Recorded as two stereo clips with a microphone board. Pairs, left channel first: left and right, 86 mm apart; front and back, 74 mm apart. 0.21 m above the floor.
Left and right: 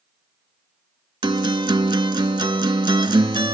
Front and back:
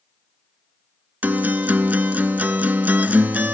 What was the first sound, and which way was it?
A guitar, 115° right.